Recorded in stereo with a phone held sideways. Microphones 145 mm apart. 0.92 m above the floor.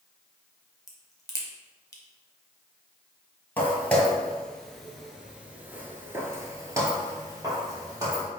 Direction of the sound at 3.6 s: 10° left (ahead or behind).